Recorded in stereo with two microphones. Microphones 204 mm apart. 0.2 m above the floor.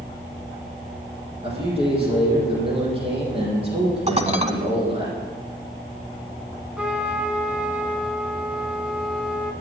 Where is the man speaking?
25° right (ahead or behind), 6.5 m.